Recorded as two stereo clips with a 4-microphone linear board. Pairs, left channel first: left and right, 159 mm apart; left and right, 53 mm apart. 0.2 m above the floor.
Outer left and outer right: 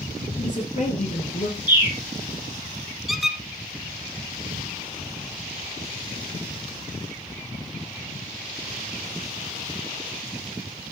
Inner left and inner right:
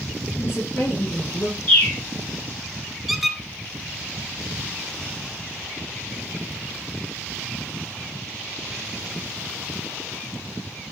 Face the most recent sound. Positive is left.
turn(degrees=0)  # may be behind; listen again after turning